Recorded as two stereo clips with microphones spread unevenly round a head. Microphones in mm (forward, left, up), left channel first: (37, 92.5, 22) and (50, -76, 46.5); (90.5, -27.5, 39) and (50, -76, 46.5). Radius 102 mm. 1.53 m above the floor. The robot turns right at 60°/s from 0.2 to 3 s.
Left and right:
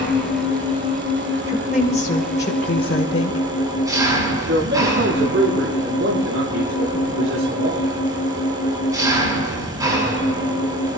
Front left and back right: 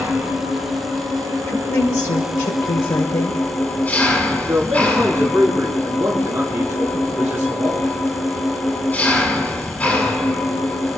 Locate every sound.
0.0 s an engine running: straight behind, 7 m; by 11.0 s 15° right, 7 m
1.5 s a woman speaking: 10° right, 1.4 m; by 3.5 s 80° left, 1.4 m
4.5 s a man speaking: 70° right, 4.5 m